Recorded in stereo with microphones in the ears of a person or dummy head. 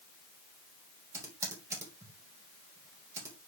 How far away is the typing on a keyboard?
About 3 m.